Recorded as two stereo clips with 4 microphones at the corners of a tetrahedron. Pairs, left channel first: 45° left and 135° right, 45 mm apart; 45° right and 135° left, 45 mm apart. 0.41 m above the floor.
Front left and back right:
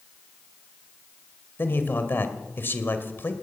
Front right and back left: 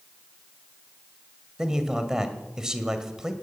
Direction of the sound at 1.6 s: 60° left.